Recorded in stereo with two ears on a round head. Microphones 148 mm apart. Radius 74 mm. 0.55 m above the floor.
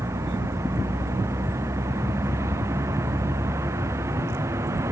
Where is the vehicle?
15° right (ahead or behind).